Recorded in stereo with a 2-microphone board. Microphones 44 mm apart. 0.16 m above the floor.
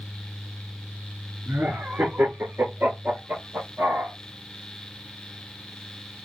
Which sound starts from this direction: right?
Laughter, at 1.5 s.